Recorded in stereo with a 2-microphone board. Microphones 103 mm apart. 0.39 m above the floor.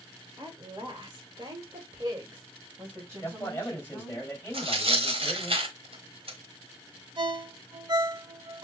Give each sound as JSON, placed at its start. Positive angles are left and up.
{"t": 0.4, "sound": "a woman speaking", "side_deg": -45, "distance_m": 1.6}
{"t": 3.2, "sound": "a man speaking", "side_deg": 20, "distance_m": 2.5}
{"t": 4.5, "sound": "tearing paper", "side_deg": -65, "distance_m": 1.1}
{"t": 7.2, "sound": "a ringtone", "side_deg": -50, "distance_m": 0.7}